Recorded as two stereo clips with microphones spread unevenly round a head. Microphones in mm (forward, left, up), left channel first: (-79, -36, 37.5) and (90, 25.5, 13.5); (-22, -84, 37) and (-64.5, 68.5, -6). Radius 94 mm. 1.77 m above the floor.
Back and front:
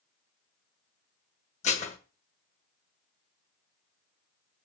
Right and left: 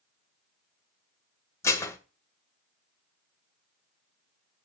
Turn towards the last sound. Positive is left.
turn(degrees=-125)